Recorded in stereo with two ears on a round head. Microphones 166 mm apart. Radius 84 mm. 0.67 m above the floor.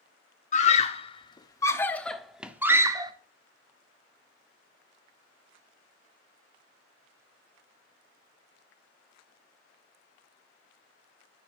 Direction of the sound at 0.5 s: 40° left (ahead or behind).